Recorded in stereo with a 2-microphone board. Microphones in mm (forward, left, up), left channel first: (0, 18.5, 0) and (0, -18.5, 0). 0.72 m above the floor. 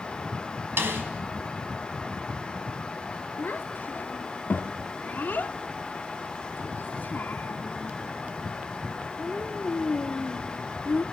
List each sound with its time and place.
0.8 s a snare drum: 80° right, 4.5 m
3.4 s a child speaking: 55° left (ahead or behind), 1.0 m